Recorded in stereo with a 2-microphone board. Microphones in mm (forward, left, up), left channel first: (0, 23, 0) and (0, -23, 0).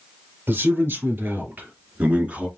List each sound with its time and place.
0.5 s a man speaking: 60° right (ahead or behind), 3.5 m; by 2.5 s 30° right (ahead or behind), 2 m